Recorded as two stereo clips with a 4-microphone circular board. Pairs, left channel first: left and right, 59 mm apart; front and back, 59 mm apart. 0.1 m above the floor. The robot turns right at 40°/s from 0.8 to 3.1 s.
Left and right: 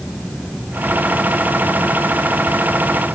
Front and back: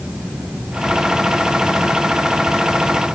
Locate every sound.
Only background noise.